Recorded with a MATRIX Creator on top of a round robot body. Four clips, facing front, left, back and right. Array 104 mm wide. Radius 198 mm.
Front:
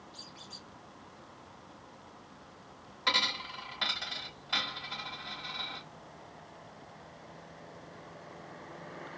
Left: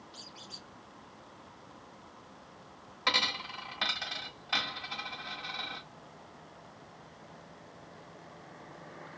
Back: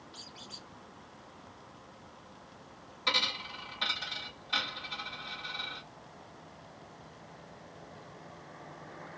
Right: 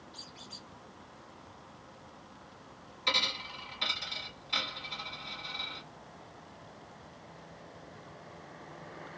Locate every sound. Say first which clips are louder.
0.1 s a squeak: even, back 1 dB; 135° left, 1.1 m
3.1 s a dropped coin: left 3 dB, front 2 dB; 75° left, 1.7 m